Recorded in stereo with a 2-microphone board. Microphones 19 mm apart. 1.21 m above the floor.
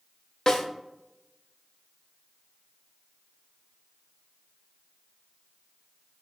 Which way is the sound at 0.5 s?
35° left (ahead or behind).